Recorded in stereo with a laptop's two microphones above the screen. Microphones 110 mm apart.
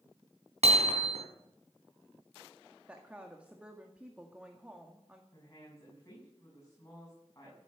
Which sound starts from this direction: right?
Hammering, at 0.6 s.